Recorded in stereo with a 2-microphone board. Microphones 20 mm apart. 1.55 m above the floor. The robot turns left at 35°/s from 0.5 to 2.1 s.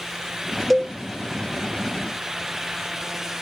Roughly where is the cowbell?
Centre.